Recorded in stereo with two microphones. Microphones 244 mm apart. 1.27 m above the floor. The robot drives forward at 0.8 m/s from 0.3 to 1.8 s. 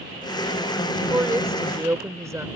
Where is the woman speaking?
10° right (ahead or behind).